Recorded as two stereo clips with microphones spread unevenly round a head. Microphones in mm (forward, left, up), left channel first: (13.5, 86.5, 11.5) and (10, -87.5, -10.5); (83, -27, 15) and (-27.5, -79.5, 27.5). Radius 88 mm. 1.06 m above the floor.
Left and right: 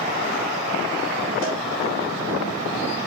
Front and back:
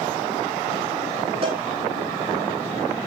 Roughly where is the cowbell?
Behind left.